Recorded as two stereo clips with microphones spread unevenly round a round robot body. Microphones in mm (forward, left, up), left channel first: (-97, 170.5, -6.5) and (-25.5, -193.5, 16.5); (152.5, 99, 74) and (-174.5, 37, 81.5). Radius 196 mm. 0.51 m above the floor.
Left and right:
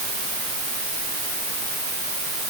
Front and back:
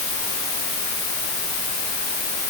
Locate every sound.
Only background noise.